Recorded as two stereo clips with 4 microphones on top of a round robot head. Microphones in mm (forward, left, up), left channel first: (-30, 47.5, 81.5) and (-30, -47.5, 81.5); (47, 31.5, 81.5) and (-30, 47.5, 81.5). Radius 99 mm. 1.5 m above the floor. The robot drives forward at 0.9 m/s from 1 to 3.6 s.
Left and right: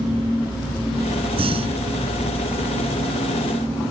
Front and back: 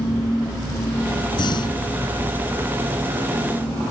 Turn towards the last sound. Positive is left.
turn(degrees=-70)